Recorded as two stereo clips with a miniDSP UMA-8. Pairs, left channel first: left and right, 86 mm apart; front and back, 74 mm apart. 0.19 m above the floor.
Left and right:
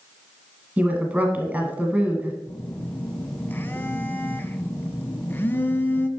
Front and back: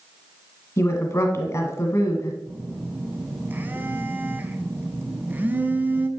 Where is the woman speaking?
25° right, 1.3 m.